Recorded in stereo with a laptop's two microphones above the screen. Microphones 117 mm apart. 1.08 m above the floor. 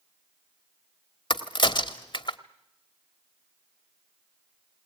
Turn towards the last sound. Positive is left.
turn(degrees=45)  # may be behind; listen again after turning